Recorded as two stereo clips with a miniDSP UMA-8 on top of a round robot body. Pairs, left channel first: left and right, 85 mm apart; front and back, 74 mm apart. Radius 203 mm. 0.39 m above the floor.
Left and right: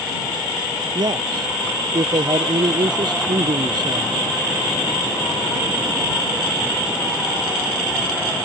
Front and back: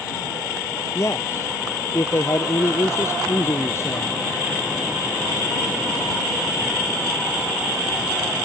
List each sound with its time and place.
0.9 s a man speaking: 55° right